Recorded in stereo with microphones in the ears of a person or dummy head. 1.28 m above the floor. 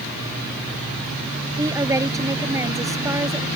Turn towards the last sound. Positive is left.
turn(degrees=-15)  # may be behind; listen again after turning